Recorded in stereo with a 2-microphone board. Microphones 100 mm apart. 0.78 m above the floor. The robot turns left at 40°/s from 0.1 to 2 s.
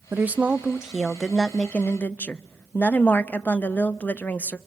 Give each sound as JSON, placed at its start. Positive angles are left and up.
{"t": 0.1, "sound": "a woman speaking", "side_deg": -20, "distance_m": 0.5}